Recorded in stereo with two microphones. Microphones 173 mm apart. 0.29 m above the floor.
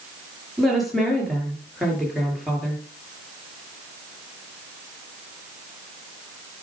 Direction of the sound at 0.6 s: Centre (ahead or behind).